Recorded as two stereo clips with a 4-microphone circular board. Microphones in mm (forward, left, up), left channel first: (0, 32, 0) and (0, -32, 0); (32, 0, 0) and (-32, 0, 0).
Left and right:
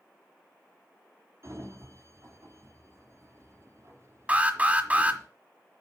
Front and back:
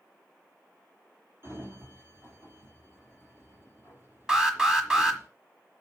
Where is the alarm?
115° right, 1.3 m.